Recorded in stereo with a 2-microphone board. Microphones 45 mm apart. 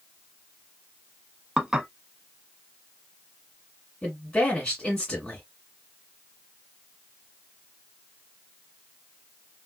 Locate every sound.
1.6 s dishes clattering: 15° right (ahead or behind), 0.8 m
4.0 s a woman speaking: 15° left (ahead or behind), 1.8 m